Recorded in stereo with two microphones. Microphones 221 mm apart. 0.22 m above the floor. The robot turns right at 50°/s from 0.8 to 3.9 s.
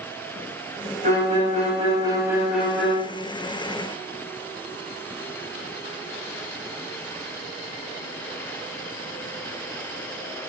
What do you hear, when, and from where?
1.0 s a violin: 85° right, 0.7 m; by 3.0 s 15° left, 0.7 m